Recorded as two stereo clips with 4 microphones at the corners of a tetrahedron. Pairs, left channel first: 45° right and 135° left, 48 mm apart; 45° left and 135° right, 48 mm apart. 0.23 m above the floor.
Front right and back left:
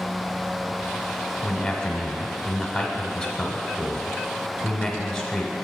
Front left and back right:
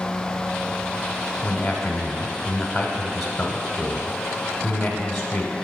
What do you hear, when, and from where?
1.4 s a man speaking: 20° right, 1.0 m